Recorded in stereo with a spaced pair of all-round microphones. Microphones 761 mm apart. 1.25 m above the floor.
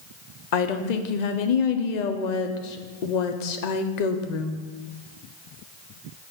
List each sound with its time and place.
0.5 s a woman speaking: 65° left (ahead or behind), 0.7 m